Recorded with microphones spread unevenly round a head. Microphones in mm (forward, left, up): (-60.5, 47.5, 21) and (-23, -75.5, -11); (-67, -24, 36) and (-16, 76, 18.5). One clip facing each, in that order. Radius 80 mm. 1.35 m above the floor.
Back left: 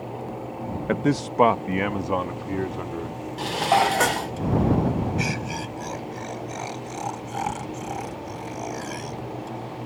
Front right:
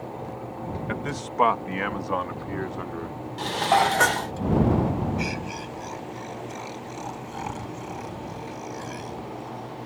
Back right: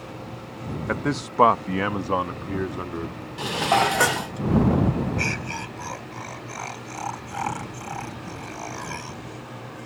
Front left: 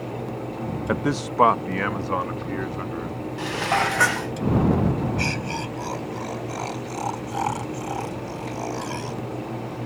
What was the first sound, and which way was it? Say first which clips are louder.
A man speaking: back left 8 dB, front left 2 dB; 140° left.